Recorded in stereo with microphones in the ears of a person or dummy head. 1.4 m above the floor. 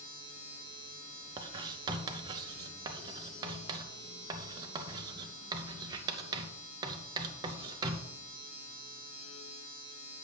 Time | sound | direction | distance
0.0 | a machine running | 30° left (ahead or behind) | 4.5 m
1.4 | writing | 20° right (ahead or behind) | 0.7 m